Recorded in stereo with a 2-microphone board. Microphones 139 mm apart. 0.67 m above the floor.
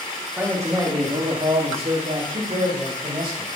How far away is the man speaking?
About 1.4 m.